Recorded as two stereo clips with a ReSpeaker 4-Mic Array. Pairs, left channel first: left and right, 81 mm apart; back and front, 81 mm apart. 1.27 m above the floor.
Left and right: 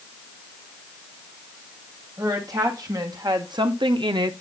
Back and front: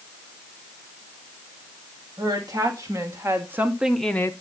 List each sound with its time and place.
2.2 s a woman speaking: 45° right, 2.5 m; by 4.3 s 125° right, 0.6 m